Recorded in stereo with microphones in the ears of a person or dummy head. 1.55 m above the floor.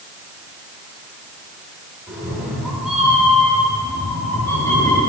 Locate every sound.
2.1 s a cat meowing: 15° right (ahead or behind), 1.7 m; by 5.0 s 15° left (ahead or behind), 2.5 m